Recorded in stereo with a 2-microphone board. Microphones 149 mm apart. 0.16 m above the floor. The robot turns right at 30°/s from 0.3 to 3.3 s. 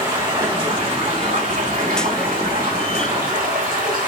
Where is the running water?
155° right, 5 m; by 4.1 s 65° right, 5 m.